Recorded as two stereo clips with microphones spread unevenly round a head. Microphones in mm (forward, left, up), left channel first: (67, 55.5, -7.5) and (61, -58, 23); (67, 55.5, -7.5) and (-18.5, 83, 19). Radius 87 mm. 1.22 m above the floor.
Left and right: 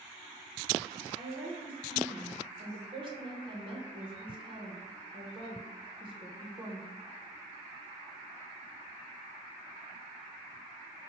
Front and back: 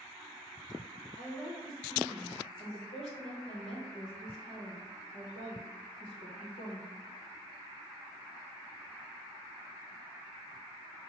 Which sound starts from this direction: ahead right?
A woman speaking, at 1.2 s.